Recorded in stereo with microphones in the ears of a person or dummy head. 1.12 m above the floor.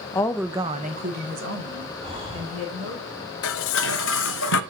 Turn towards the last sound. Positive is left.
turn(degrees=65)  # may be behind; listen again after turning